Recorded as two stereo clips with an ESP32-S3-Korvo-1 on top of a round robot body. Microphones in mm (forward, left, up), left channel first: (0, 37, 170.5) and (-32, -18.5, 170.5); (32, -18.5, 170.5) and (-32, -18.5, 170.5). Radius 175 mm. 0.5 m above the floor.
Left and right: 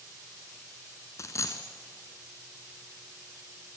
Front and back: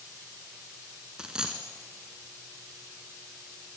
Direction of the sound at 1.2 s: 100° left.